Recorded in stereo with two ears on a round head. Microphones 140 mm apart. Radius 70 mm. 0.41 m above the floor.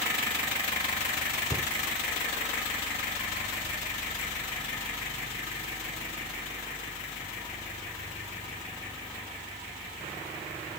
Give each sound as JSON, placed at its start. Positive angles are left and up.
{"t": 1.5, "sound": "a cupboard door", "side_deg": 20, "distance_m": 1.0}